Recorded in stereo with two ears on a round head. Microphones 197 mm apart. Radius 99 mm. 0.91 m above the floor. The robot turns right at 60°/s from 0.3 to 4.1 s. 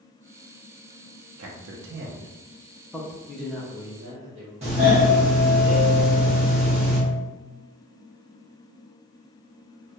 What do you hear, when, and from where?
1.4 s a man speaking: 70° right (ahead or behind), 0.6 m; by 3.2 s 20° left (ahead or behind), 0.6 m
3.3 s a man speaking: 165° left, 0.9 m; by 4.5 s 145° right, 0.9 m
4.6 s a doorbell: 30° right (ahead or behind), 1.7 m